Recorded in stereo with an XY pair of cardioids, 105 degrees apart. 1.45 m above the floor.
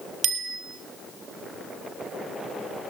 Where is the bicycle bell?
70° right, 3.5 m.